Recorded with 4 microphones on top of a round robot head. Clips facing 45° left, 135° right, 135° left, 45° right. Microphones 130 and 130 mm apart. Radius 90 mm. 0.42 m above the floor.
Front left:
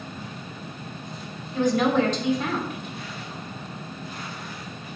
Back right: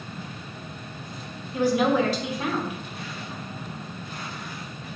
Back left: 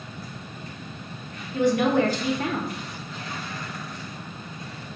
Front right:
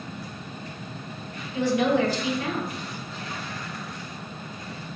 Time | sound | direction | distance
1.5 | a woman speaking | 145° left | 1.3 m